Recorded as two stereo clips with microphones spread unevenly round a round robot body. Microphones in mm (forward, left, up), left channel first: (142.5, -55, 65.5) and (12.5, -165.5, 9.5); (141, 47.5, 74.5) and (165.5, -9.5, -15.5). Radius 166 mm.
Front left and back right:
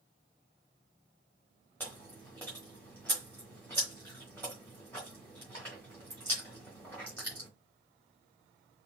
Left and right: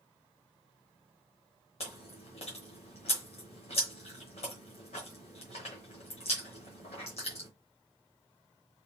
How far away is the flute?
I don't hear a flute.